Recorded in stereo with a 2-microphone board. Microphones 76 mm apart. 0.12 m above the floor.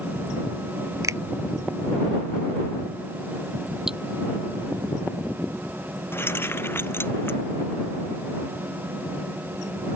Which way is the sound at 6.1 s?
30° left (ahead or behind).